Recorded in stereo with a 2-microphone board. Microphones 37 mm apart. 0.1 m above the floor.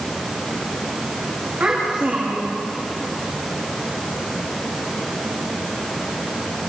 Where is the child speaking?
35° right (ahead or behind), 8 m.